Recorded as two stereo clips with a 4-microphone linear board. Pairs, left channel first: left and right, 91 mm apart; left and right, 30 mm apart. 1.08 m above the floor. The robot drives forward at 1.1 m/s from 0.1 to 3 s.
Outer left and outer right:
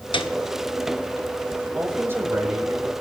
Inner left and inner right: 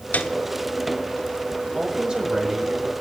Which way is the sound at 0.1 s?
65° left (ahead or behind).